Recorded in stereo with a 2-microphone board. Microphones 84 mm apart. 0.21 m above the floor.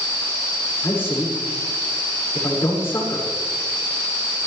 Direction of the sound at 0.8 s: 30° left (ahead or behind).